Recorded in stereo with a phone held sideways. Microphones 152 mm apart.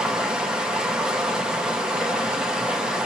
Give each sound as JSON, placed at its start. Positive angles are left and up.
{"t": 0.0, "sound": "running water", "side_deg": -5, "distance_m": 0.8}